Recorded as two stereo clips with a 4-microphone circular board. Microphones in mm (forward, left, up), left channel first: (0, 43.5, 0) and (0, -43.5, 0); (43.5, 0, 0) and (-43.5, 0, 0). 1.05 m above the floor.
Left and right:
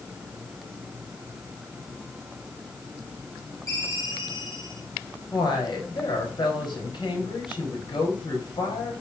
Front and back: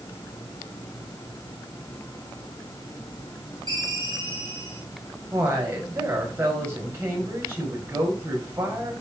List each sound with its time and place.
3.7 s a ringtone: 140° left, 5 m
5.3 s a woman speaking: 120° left, 5 m